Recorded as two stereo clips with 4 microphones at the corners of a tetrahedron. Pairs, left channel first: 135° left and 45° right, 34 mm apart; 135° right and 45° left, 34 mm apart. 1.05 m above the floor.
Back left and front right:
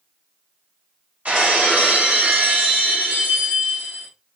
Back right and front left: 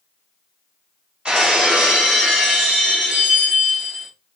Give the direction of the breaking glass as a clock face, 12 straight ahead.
1 o'clock.